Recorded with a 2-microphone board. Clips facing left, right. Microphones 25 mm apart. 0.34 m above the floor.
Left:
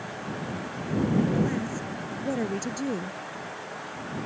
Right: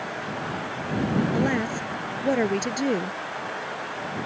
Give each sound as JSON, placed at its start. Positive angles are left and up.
{"t": 1.3, "sound": "a woman speaking", "side_deg": -40}